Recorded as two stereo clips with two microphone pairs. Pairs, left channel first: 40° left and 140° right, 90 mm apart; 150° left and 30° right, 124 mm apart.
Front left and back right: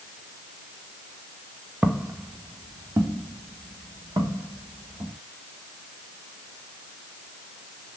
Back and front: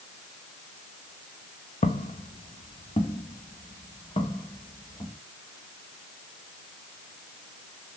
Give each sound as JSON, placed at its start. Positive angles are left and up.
{"t": 1.8, "sound": "footsteps", "azimuth_deg": 145, "distance_m": 0.7}